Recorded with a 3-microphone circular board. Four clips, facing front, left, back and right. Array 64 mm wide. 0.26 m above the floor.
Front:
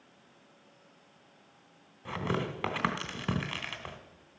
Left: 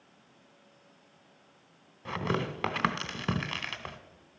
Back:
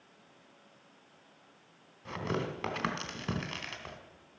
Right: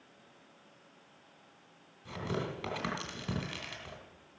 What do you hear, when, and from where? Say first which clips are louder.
2.0 s tearing paper: left 5 dB, front 2 dB; 70° left, 1.2 m